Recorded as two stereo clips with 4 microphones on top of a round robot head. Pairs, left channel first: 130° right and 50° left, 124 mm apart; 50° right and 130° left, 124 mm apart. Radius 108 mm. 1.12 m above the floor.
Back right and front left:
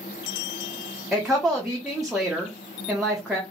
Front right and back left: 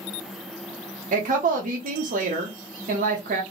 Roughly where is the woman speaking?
Behind left.